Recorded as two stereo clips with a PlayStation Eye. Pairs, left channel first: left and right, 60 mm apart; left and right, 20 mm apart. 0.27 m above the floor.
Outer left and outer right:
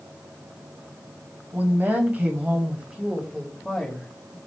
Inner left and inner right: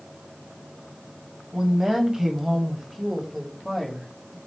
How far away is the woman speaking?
About 1.9 m.